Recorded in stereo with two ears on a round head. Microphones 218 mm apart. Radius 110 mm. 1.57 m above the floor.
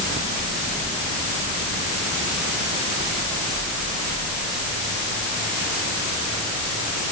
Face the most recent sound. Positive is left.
No sound to turn to.